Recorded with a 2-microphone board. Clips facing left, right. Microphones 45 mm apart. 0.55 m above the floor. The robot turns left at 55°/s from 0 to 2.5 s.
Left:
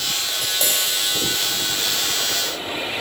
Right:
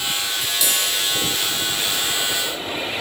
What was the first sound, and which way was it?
Tapping, 60° left.